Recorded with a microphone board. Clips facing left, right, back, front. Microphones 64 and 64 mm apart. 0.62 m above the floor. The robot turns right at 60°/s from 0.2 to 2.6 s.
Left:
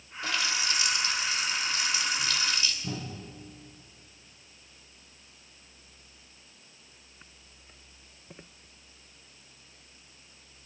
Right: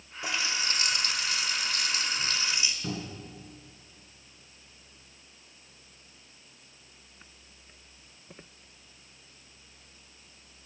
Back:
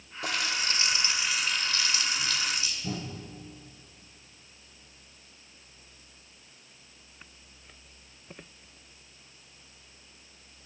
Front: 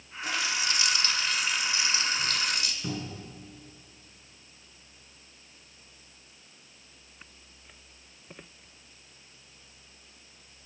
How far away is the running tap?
About 1.5 m.